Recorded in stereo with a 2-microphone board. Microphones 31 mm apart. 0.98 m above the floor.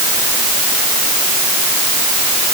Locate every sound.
Only background noise.